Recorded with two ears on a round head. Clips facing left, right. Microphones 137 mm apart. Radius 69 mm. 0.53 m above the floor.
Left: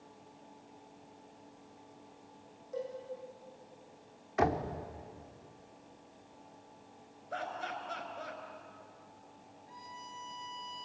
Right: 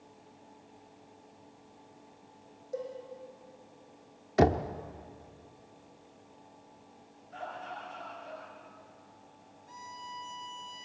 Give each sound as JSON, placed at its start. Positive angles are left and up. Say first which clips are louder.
{"t": 2.7, "sound": "a cowbell", "louder": "right 2 dB", "side_deg": -35, "distance_m": 8.0}
{"t": 4.4, "sound": "knocking", "louder": "right 5 dB", "side_deg": -40, "distance_m": 0.9}
{"t": 7.3, "sound": "laughter", "louder": "left 2 dB", "side_deg": 80, "distance_m": 7.0}
{"t": 9.7, "sound": "a violin", "louder": "right 4 dB", "side_deg": -55, "distance_m": 6.5}